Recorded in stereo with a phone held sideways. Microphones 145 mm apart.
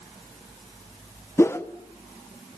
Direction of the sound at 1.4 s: 15° left (ahead or behind).